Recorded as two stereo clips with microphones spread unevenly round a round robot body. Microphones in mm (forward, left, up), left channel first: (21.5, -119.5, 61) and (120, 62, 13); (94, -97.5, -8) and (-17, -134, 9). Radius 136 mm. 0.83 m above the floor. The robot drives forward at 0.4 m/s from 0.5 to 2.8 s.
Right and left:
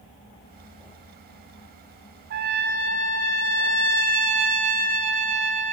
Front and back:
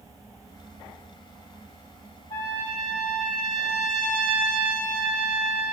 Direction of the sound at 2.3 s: 80° left.